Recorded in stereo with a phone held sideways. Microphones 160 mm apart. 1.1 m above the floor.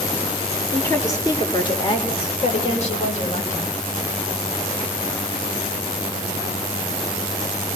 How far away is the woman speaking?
About 2.5 m.